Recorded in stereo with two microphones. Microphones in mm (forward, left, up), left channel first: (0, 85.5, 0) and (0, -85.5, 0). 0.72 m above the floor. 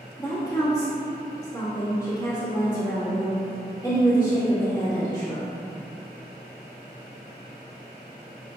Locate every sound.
0.2 s a woman speaking: 20° left (ahead or behind), 1.1 m